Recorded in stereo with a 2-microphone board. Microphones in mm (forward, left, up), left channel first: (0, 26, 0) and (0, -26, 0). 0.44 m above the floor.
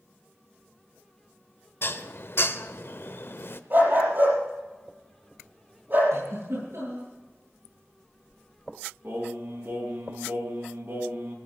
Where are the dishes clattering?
55° left (ahead or behind), 0.8 m.